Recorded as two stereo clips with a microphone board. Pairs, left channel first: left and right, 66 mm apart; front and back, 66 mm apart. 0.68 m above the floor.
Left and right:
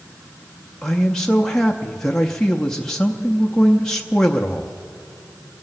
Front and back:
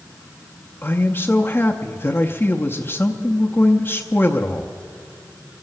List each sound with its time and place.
0.8 s a man speaking: 15° left, 0.7 m